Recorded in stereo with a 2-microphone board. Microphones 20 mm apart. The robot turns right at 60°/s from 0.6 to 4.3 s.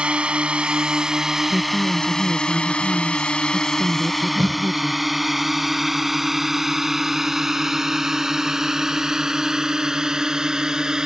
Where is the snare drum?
5° left (ahead or behind).